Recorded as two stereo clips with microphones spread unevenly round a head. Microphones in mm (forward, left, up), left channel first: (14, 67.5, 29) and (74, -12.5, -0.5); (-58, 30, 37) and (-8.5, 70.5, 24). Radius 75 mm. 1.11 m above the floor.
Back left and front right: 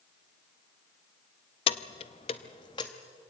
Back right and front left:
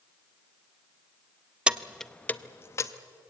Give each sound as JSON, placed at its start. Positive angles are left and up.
{"t": 1.7, "sound": "keys jangling", "azimuth_deg": 120, "distance_m": 0.7}